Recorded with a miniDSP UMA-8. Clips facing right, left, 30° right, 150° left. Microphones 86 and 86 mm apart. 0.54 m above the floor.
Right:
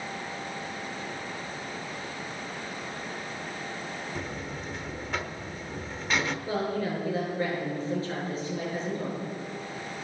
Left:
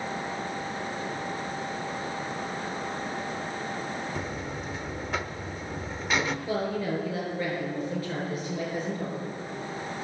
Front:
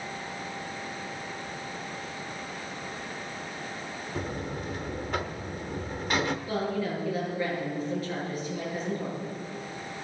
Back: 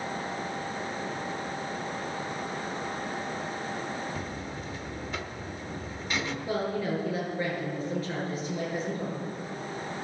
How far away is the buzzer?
About 0.9 m.